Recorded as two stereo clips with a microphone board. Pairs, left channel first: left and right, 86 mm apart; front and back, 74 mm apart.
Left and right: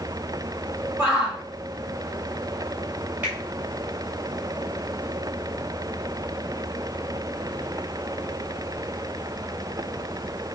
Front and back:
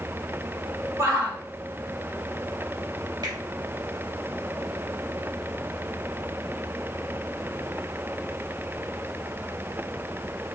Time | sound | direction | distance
1.0 | a shout | 155° right | 1.7 m
3.2 | a finger snap | 160° right | 2.5 m